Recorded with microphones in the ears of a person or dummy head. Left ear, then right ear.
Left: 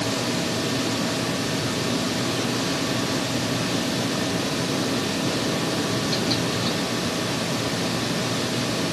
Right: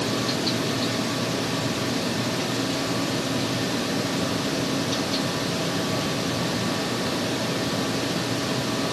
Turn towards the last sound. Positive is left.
No sound to turn to.